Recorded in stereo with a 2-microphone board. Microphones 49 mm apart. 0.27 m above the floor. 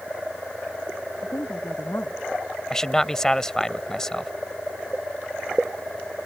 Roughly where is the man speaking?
Centre.